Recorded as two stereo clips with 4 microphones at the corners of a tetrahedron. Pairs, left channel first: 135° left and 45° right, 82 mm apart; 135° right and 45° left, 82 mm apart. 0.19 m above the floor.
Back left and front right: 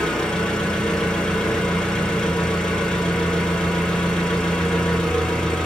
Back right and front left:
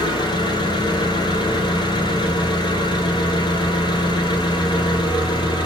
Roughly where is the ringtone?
No ringtone in this recording.